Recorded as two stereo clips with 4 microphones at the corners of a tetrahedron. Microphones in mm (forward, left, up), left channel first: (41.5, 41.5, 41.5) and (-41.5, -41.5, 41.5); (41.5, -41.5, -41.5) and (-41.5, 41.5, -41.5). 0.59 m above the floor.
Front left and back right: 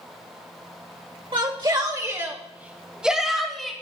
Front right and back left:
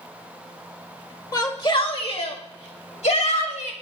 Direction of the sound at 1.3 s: 95° right.